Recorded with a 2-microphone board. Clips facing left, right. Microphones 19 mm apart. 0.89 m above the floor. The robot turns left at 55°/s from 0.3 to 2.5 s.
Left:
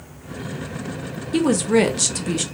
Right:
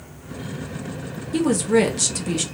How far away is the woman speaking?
About 0.5 m.